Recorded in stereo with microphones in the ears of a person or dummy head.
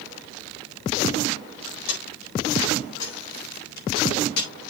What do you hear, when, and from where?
1.9 s keys jangling: 75° left (ahead or behind), 4.5 m; by 4.5 s 60° left (ahead or behind), 3.5 m